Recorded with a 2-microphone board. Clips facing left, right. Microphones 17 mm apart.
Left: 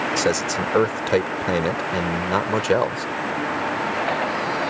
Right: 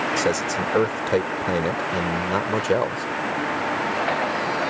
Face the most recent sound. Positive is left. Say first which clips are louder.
# left 1 dB
turn(degrees=30)  # may be behind; listen again after turning